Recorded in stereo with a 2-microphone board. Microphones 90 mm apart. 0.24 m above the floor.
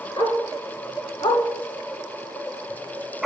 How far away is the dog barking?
About 1.4 m.